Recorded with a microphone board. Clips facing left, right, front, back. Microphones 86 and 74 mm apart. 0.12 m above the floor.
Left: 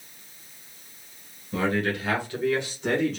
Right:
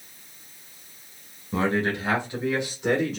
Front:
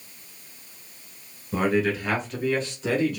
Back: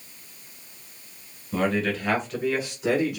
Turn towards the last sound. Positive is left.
turn(degrees=-165)